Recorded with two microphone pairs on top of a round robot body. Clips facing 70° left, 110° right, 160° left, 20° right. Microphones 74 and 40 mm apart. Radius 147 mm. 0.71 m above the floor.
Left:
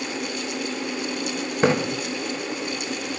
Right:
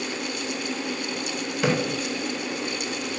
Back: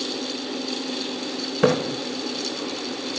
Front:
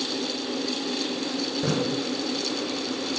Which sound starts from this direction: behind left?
A splash, at 1.6 s.